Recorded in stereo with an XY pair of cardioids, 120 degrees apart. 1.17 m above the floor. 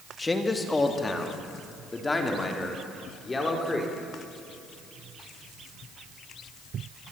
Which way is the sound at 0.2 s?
20° left.